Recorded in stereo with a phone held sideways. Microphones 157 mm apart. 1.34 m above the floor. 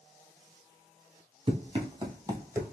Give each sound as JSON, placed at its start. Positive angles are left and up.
{"t": 1.5, "sound": "running footsteps", "side_deg": -35, "distance_m": 1.7}